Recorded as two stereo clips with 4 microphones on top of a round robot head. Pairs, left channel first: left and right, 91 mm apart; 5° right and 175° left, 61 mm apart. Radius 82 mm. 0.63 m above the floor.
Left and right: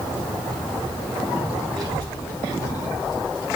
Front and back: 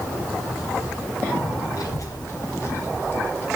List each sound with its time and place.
1.7 s a child speaking: straight ahead, 1.5 m; by 3.5 s 55° left, 2.0 m